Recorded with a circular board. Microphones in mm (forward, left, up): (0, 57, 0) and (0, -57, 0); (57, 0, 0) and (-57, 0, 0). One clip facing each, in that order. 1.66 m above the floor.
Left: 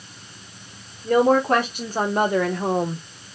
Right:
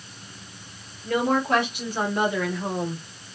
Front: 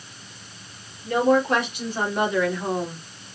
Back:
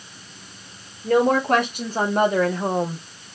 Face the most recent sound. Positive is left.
turn(degrees=120)